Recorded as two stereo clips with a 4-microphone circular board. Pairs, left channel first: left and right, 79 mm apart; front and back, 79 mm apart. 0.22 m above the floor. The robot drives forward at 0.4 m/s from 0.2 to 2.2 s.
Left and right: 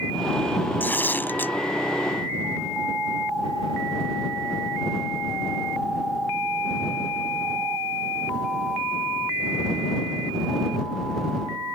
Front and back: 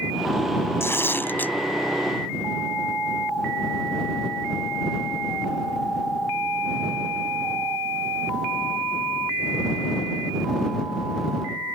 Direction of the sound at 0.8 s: 35° left.